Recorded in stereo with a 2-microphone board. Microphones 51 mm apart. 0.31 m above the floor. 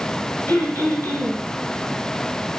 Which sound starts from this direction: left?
Throat clearing, at 0.5 s.